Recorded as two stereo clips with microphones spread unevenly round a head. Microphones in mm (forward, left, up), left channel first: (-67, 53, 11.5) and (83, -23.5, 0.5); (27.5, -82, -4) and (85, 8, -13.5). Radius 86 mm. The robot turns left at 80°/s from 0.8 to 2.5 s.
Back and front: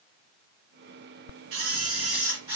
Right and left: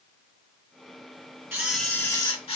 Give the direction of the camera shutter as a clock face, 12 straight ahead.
12 o'clock.